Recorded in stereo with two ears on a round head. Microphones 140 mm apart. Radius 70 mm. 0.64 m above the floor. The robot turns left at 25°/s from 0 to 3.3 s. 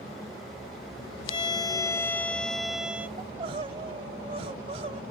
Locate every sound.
1.3 s a violin: 35° left; by 3.1 s 10° right
3.2 s crying: 35° right (ahead or behind)